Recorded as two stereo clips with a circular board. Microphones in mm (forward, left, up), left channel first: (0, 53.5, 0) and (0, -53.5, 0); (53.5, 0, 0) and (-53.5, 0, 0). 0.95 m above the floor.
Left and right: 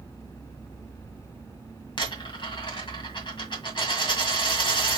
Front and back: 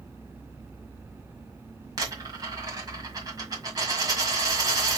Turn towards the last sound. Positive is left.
turn(degrees=130)